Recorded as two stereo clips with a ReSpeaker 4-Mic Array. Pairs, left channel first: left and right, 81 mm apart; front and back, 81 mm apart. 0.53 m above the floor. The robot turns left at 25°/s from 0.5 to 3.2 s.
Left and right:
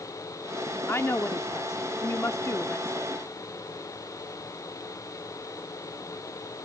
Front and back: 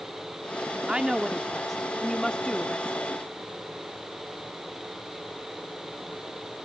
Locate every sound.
0.9 s a woman speaking: 110° left; by 3.1 s 55° left